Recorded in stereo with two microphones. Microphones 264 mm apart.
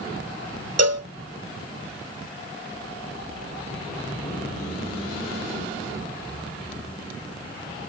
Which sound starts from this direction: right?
A cowbell, at 0.8 s.